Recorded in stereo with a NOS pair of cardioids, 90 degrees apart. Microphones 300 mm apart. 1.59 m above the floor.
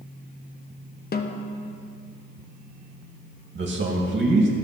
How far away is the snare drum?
About 1.1 m.